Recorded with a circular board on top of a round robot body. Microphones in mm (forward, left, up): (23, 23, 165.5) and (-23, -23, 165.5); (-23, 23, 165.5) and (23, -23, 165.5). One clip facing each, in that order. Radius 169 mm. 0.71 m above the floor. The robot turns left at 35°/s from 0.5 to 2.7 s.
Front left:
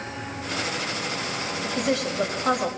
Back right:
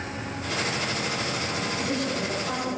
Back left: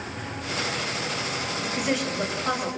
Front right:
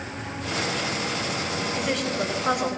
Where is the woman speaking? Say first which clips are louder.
Front left 5 dB, back left 1 dB; 60° left, 5 m; by 2.7 s 25° left, 5 m.